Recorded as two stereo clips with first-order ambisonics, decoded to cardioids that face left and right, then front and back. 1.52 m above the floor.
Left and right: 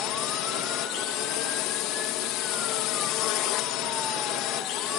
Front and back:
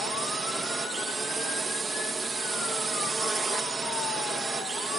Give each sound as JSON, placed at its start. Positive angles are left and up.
{"t": 0.0, "sound": "a drone", "azimuth_deg": 105}